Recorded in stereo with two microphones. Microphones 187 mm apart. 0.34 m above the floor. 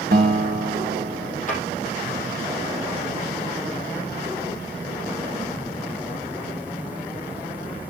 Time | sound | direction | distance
0.1 | a guitar | 55° right (ahead or behind) | 1.6 m
1.5 | a drawer | 45° left (ahead or behind) | 5.5 m